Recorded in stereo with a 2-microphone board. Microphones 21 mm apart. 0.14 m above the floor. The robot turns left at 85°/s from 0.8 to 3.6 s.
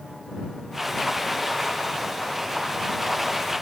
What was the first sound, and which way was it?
Only background noise.